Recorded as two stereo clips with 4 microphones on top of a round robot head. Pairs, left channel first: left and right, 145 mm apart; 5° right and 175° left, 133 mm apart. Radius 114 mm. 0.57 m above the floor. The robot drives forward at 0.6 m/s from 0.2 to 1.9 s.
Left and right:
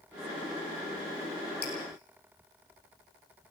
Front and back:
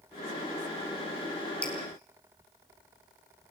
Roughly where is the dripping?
Left.